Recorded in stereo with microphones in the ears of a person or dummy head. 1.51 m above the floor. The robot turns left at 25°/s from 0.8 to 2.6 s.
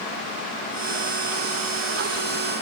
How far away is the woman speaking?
I don't hear a woman speaking.